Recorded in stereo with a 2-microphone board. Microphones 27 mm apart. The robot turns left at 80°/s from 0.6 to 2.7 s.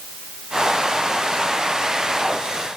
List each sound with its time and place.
Only background noise.